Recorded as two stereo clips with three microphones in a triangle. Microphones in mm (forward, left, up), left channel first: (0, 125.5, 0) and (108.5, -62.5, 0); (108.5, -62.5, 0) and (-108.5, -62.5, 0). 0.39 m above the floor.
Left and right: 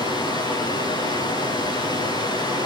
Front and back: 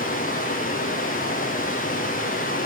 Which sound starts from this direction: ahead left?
Running water, at 0.0 s.